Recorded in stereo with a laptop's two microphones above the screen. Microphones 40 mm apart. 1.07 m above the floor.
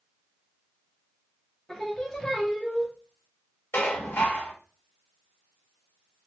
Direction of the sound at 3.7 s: 80° left.